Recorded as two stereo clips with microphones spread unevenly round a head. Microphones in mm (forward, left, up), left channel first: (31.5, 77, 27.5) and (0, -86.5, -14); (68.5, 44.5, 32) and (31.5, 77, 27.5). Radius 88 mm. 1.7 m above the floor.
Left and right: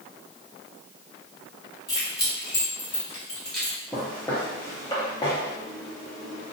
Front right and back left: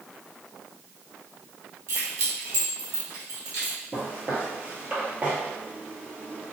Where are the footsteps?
130° left, 1.8 m; by 6.5 s 85° left, 2.5 m.